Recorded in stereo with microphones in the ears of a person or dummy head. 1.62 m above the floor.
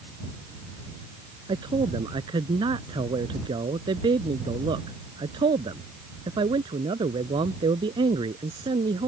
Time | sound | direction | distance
1.5 | a man speaking | 25° right (ahead or behind) | ?